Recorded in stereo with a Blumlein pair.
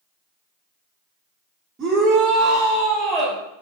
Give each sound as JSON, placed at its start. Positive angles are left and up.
{"t": 1.8, "sound": "a shout", "azimuth_deg": -20, "distance_m": 2.5}